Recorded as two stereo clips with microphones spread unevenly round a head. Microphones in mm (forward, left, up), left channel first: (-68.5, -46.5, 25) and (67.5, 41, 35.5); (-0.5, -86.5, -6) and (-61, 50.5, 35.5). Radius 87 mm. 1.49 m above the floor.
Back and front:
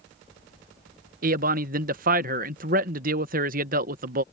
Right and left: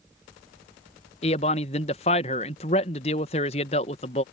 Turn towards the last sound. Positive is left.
turn(degrees=-5)